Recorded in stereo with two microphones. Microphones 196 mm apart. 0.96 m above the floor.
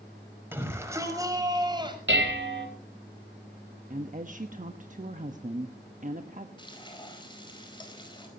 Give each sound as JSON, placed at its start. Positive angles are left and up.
{"t": 0.5, "sound": "a shout", "side_deg": -10, "distance_m": 5.5}
{"t": 2.1, "sound": "dishes clattering", "side_deg": -70, "distance_m": 3.5}
{"t": 3.9, "sound": "a woman speaking", "side_deg": -40, "distance_m": 1.1}
{"t": 6.6, "sound": "frying", "side_deg": 25, "distance_m": 4.5}